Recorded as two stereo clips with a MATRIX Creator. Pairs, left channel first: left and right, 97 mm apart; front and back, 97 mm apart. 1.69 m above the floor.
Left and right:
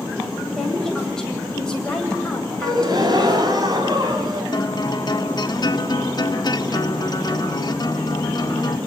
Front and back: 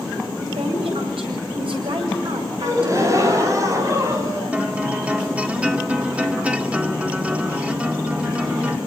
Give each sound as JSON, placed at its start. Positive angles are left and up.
{"t": 0.6, "sound": "a woman speaking", "azimuth_deg": 170, "distance_m": 9.0}
{"t": 2.6, "sound": "a gasp", "azimuth_deg": -130, "distance_m": 5.0}
{"t": 4.5, "sound": "a guitar", "azimuth_deg": 105, "distance_m": 1.8}